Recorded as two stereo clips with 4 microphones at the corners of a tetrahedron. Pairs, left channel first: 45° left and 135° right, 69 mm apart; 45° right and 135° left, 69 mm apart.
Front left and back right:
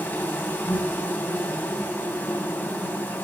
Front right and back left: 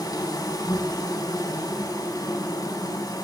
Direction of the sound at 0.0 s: 25° right.